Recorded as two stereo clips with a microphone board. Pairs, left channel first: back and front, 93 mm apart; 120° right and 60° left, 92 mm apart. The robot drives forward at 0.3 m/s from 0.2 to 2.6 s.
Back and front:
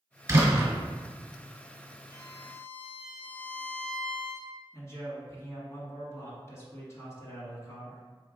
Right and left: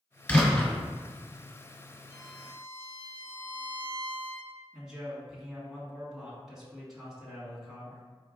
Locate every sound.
0.3 s a door slam: 45° right, 1.5 m; by 0.7 s 50° right, 1.4 m
2.1 s a violin: 125° left, 1.3 m; by 4.5 s 130° left, 1.4 m
4.7 s a man speaking: 145° left, 1.7 m